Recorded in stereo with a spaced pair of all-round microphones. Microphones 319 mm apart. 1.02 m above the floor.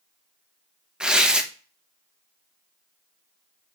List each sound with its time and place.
1.0 s tearing paper: 5° right (ahead or behind), 0.8 m